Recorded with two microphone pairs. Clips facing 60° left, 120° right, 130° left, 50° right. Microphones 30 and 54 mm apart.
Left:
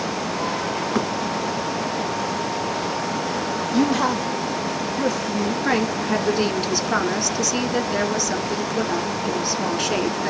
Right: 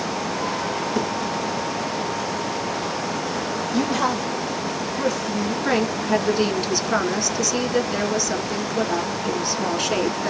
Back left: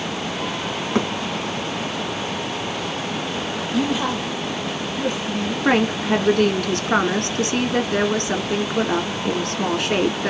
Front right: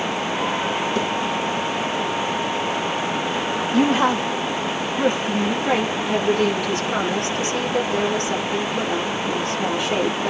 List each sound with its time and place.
0.9 s a thud: 100° left, 2.5 m
3.7 s a woman speaking: 20° right, 1.0 m
5.7 s a woman speaking: 145° left, 2.5 m